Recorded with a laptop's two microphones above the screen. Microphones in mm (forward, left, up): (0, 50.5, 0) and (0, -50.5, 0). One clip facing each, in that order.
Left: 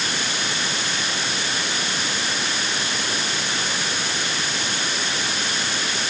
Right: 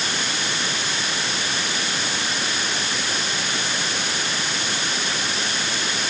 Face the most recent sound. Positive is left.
No sound to turn to.